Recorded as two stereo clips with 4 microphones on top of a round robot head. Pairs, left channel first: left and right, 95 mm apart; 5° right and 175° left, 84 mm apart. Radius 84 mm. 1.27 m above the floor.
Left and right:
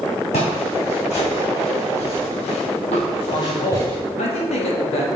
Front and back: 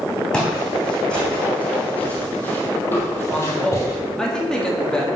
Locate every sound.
0.3 s footsteps: 75° left, 3.5 m; by 4.0 s 15° left, 1.4 m
3.3 s a man speaking: 75° left, 2.5 m